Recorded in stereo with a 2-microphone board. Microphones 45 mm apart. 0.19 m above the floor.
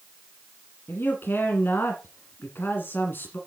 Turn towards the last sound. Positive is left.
turn(degrees=55)  # may be behind; listen again after turning